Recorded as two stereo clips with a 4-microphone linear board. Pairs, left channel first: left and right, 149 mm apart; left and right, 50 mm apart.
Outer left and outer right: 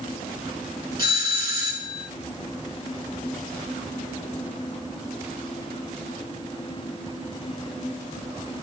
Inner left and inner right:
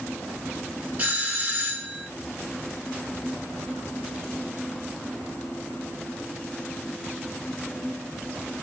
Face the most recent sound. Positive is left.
turn(degrees=-30)  # may be behind; listen again after turning